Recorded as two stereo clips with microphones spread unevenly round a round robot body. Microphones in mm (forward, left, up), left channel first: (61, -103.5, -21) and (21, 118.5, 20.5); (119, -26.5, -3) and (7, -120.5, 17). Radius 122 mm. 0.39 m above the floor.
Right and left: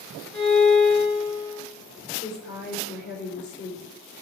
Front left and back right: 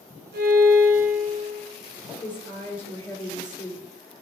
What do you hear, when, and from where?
0.3 s a violin: 170° right, 5 m
2.2 s a woman speaking: 40° right, 4.5 m